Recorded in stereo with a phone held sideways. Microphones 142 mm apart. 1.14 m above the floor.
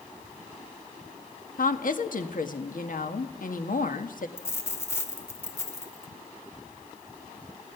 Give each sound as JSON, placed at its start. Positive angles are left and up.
{"t": 1.6, "sound": "a woman speaking", "side_deg": 70, "distance_m": 1.5}
{"t": 4.4, "sound": "a dropped coin", "side_deg": 20, "distance_m": 1.8}